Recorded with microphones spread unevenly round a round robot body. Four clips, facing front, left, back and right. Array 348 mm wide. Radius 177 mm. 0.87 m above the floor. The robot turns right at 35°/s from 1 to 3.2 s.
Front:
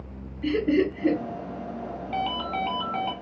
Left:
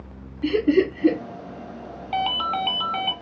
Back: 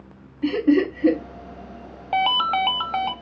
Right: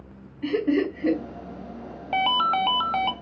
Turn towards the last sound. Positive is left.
turn(degrees=-145)